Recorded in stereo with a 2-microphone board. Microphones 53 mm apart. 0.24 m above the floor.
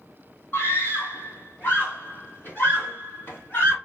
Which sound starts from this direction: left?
A scream, at 0.5 s.